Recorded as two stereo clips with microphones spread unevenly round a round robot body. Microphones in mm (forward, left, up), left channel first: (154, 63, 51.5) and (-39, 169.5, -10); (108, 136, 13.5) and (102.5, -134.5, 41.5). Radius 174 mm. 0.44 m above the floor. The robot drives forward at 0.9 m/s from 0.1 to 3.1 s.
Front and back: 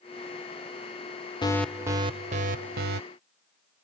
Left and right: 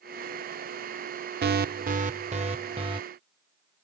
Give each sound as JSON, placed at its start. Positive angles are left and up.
{"t": 1.4, "sound": "an alarm", "azimuth_deg": -110}